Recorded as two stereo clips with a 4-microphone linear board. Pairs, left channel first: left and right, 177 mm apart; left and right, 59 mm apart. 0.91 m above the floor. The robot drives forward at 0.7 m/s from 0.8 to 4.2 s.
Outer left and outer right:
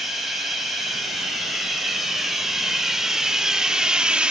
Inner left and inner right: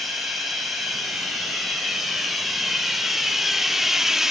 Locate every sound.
0.0 s running water: centre (ahead or behind), 3 m; by 4.3 s 5° right (ahead or behind), 0.8 m